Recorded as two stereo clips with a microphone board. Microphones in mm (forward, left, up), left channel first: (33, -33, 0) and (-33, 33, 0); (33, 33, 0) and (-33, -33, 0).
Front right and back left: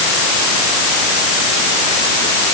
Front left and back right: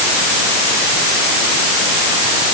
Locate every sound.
Only background noise.